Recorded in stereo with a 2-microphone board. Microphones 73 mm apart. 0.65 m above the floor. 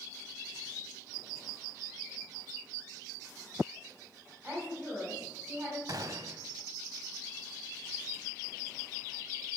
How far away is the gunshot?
About 0.8 m.